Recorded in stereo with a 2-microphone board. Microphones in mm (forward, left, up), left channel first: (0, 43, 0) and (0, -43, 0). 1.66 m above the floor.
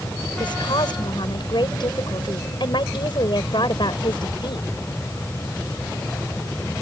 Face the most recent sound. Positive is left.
turn(degrees=65)  # may be behind; listen again after turning